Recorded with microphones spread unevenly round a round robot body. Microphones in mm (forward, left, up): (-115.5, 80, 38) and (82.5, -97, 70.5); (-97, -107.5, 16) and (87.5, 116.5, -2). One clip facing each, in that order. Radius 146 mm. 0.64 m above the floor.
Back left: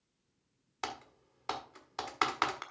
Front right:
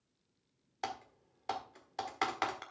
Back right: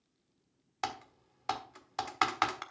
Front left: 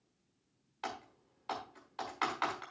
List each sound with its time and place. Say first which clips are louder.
0.8 s typing on a keyboard: even, back right 3 dB; 145° right, 1.4 m